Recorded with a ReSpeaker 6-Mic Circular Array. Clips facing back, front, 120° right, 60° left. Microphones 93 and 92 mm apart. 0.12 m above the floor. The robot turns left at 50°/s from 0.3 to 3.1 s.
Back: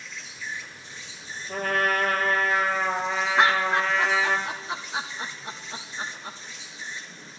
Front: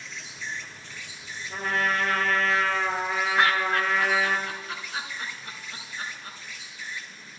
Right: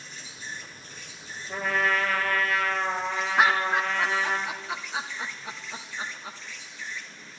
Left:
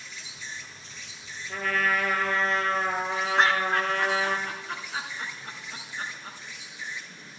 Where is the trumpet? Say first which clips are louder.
Back 2 dB, right 1 dB; 170° left, 1.7 m; by 4.4 s 90° left, 1.7 m.